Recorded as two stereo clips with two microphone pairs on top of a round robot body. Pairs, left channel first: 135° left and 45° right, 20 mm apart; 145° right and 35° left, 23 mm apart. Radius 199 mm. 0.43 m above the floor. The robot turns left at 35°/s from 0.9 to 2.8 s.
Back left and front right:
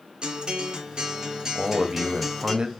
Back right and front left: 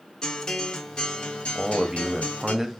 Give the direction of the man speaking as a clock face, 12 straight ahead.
12 o'clock.